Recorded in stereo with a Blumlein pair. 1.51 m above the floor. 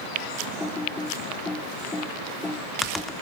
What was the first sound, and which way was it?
Typing on a keyboard, 10° left.